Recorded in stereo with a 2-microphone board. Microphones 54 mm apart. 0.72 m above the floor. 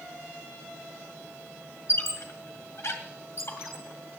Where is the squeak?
60° left (ahead or behind), 2 m.